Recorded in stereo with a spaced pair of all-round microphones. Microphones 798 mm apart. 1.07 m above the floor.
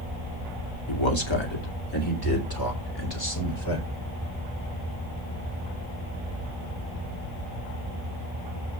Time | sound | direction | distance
0.9 | a man speaking | 35° left (ahead or behind) | 2.5 m